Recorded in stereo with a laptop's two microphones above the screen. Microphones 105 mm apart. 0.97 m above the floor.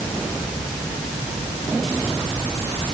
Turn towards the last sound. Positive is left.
No sound to turn to.